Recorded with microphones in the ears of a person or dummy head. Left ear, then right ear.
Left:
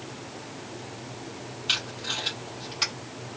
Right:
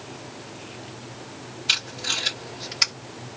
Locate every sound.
1.7 s tape being pulled: 15° right (ahead or behind), 2.5 m